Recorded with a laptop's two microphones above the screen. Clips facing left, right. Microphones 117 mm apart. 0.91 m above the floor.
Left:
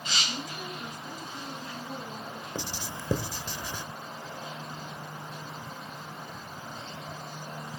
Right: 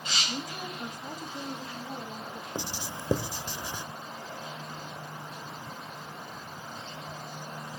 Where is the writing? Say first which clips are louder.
Right 1 dB; 20° right (ahead or behind), 0.6 m.